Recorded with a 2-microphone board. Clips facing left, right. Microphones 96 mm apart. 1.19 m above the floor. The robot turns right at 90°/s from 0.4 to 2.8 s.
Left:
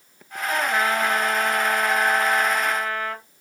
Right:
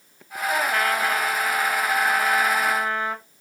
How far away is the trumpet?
About 0.8 m.